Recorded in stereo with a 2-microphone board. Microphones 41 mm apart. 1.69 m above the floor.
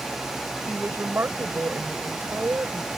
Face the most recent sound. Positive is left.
turn(degrees=-75)  # may be behind; listen again after turning